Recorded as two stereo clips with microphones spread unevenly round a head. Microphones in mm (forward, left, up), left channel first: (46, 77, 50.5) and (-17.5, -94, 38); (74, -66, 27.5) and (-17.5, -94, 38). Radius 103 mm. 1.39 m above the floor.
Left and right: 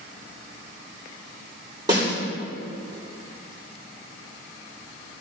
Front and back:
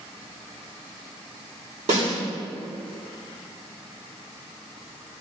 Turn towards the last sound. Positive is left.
turn(degrees=180)